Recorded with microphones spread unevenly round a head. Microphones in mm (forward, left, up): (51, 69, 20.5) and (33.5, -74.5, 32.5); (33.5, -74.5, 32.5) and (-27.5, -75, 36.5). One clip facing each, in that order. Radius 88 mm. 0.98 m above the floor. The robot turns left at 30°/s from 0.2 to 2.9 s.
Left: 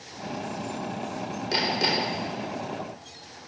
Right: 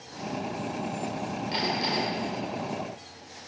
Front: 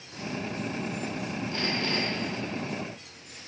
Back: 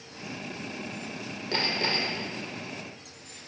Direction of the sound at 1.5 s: 130° left.